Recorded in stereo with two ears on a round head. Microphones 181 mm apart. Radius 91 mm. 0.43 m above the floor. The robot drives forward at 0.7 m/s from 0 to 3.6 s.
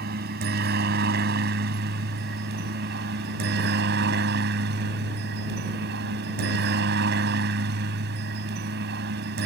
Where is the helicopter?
50° right (ahead or behind); by 9.5 s 55° right (ahead or behind).